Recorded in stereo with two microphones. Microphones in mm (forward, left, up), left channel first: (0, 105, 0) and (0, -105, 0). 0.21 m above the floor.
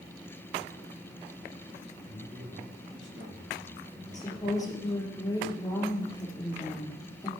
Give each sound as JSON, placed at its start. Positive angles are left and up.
{"t": 2.1, "sound": "a man speaking", "side_deg": -65, "distance_m": 6.0}
{"t": 4.1, "sound": "a woman speaking", "side_deg": 20, "distance_m": 4.5}